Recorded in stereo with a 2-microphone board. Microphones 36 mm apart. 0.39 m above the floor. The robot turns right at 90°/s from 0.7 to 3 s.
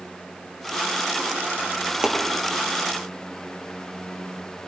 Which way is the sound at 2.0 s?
20° right (ahead or behind).